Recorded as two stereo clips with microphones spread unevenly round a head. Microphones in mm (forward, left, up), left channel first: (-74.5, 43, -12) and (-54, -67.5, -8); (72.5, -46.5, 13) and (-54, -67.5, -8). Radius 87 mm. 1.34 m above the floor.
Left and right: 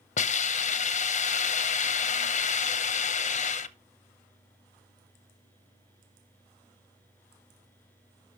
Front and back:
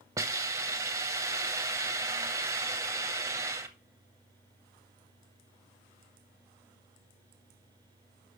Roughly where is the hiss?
Left.